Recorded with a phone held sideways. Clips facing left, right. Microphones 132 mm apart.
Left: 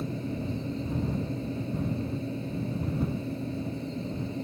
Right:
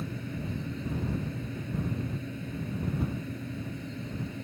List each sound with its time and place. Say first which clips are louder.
0.0 s a fan: left 4 dB; 30° left (ahead or behind)